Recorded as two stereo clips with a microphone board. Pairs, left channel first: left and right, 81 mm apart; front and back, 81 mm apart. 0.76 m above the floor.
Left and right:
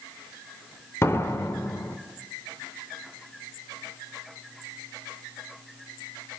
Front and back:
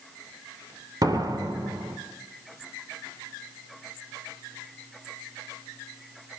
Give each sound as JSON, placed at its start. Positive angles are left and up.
{"t": 1.0, "sound": "a door slam", "azimuth_deg": 145, "distance_m": 2.0}